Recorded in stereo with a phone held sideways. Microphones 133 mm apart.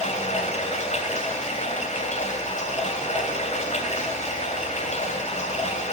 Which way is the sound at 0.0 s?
65° left (ahead or behind).